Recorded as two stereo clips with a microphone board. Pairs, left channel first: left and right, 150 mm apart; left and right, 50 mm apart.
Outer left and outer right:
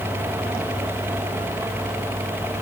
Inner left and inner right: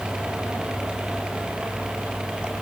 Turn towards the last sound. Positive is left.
No sound to turn to.